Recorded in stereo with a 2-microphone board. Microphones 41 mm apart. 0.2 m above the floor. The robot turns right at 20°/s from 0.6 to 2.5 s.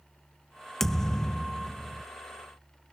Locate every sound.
0.8 s a thud: 10° left (ahead or behind); by 2.0 s 30° left (ahead or behind)